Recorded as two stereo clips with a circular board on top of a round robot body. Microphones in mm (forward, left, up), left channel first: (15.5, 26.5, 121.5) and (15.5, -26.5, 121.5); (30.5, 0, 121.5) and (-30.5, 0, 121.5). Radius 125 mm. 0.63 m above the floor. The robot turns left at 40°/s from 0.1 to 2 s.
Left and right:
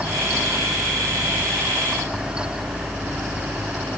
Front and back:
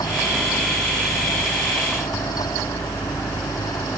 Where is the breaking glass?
I don't hear breaking glass.